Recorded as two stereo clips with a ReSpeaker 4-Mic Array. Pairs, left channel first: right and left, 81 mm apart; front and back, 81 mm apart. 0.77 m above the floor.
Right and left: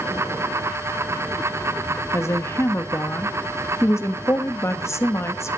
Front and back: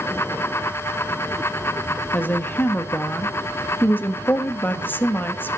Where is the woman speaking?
55° right, 1.2 m.